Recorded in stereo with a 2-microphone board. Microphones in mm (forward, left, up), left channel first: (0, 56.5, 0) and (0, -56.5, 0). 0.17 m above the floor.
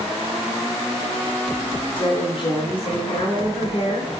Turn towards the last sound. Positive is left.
turn(degrees=45)  # may be behind; listen again after turning